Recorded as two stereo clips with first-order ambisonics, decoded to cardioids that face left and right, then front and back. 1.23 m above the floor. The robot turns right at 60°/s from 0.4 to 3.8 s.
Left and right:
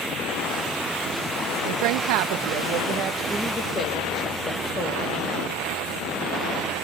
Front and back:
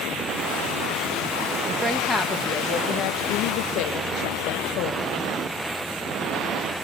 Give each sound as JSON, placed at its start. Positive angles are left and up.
{"t": 1.6, "sound": "a woman speaking", "azimuth_deg": -110, "distance_m": 1.1}